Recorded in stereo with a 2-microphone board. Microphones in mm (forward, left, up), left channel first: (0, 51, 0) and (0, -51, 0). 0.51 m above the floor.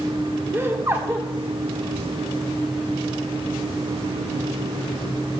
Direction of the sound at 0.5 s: 25° right (ahead or behind).